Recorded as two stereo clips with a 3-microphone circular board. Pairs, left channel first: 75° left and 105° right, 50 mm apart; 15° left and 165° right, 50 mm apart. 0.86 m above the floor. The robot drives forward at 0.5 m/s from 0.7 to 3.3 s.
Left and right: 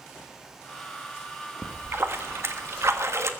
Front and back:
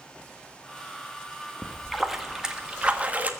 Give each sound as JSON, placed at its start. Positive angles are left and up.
{"t": 1.6, "sound": "a splash", "azimuth_deg": -70, "distance_m": 1.3}